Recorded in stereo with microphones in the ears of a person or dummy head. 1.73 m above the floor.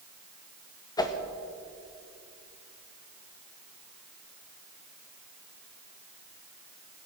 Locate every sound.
1.0 s a whoosh: 20° left (ahead or behind), 0.9 m